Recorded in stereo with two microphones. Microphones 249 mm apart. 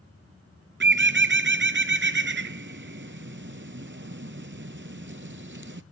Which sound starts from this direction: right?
A bird, at 0.8 s.